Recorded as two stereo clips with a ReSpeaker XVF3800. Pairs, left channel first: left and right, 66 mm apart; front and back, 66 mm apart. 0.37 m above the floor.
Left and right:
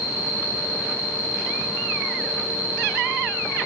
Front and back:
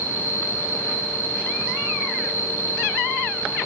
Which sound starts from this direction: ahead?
An insect, at 0.0 s.